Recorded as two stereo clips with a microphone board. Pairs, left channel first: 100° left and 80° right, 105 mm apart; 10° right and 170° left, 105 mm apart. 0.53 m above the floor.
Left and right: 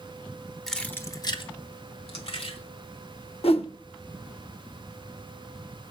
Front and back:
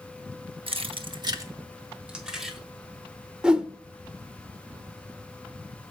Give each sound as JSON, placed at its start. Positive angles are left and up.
{"t": 0.7, "sound": "keys jangling", "azimuth_deg": -175, "distance_m": 0.9}
{"t": 3.4, "sound": "a whoosh", "azimuth_deg": 90, "distance_m": 0.6}